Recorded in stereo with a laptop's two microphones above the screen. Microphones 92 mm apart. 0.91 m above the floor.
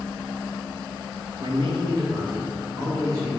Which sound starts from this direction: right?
A man speaking, at 1.4 s.